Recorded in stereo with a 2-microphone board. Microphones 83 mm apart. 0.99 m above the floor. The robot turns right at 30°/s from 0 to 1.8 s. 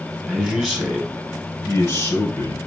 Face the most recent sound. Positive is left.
turn(degrees=40)